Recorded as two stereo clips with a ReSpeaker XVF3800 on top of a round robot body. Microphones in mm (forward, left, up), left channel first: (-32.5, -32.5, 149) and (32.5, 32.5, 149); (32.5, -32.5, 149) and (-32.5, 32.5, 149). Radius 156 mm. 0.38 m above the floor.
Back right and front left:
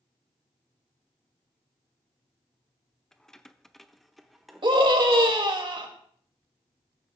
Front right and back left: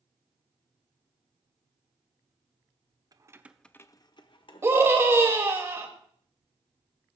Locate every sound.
3.1 s keys jangling: 145° left, 1.0 m; by 4.9 s 45° right, 2 m
4.6 s a scream: 75° left, 2.5 m